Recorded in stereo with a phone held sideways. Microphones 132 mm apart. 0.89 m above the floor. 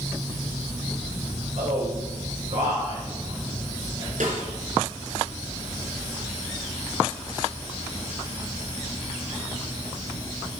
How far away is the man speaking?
About 4 m.